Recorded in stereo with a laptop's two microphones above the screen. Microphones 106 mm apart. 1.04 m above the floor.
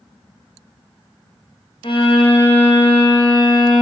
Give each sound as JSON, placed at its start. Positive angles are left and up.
{"t": 1.8, "sound": "a violin", "side_deg": 50, "distance_m": 1.2}